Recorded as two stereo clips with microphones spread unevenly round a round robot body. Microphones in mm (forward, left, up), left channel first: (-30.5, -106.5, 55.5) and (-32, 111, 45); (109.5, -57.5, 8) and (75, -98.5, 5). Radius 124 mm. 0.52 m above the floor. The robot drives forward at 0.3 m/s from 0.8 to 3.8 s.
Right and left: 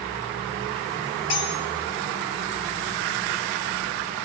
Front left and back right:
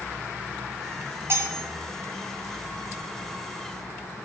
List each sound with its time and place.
1.3 s cutlery clinking: 90° right, 2.5 m